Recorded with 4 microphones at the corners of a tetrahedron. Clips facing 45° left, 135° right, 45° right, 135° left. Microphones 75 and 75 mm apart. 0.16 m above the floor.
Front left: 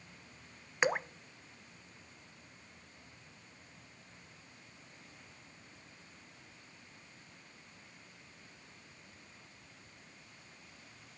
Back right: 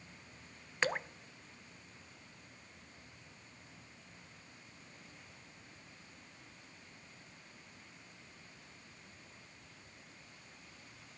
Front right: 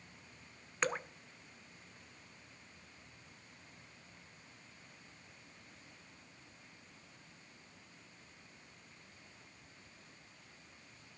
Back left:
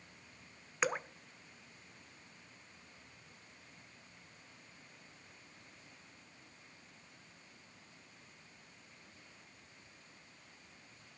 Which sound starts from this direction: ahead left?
Dripping, at 0.8 s.